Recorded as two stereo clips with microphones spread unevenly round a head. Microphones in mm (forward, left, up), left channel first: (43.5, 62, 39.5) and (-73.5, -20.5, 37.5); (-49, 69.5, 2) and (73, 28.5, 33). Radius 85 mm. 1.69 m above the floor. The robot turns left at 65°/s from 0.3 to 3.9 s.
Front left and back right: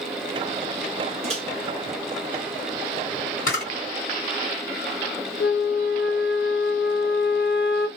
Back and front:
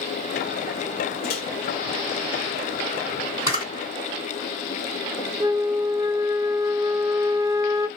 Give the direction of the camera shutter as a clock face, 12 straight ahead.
11 o'clock.